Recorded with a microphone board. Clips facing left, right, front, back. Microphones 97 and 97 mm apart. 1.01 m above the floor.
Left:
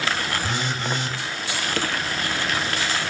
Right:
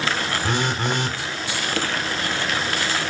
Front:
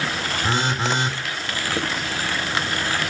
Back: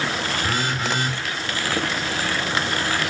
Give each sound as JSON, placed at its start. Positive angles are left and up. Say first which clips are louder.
{"t": 0.4, "sound": "a phone buzzing", "louder": "right 3 dB, front 5 dB", "azimuth_deg": -65, "distance_m": 1.6}